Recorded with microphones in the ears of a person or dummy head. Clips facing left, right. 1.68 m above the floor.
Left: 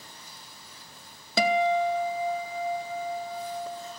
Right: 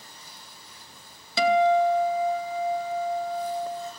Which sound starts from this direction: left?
A guitar, at 1.4 s.